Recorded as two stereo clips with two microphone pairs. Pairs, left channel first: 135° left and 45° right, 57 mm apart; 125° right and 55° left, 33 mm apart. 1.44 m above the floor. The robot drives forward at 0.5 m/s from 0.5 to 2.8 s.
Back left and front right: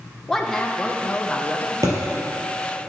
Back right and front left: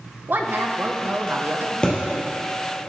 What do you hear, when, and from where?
0.3 s a woman speaking: 55° left, 1.5 m; by 1.7 s 80° left, 1.2 m
1.8 s a thud: 65° right, 3.5 m